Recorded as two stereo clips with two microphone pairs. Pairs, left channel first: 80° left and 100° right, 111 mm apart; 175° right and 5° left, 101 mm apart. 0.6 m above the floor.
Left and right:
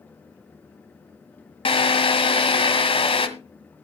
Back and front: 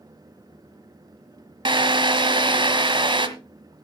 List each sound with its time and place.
1.6 s a drill: 45° left, 1.6 m